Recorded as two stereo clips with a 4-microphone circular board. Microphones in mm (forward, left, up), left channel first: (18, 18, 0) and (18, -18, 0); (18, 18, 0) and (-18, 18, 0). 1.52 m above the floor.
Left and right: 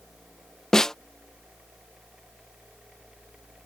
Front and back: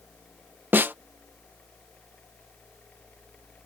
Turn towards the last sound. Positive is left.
turn(degrees=160)